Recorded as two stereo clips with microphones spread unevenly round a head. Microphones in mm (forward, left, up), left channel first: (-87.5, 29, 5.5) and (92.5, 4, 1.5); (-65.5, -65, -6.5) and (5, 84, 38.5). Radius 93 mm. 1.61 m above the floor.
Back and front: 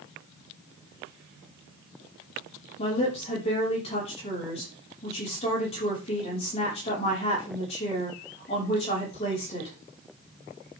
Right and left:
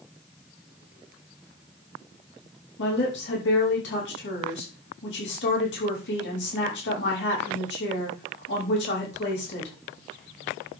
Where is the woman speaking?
125° right, 5 m.